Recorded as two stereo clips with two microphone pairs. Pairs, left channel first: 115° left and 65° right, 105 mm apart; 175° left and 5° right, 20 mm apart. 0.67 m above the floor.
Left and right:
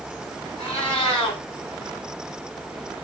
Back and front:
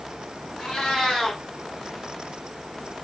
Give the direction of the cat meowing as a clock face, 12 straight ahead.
7 o'clock.